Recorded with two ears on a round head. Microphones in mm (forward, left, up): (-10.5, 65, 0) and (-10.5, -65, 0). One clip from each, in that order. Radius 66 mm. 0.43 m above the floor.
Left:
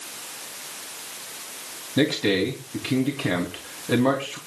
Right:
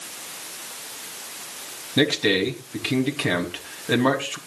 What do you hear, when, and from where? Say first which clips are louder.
2.0 s a man speaking: right 2 dB; 35° right (ahead or behind), 3 m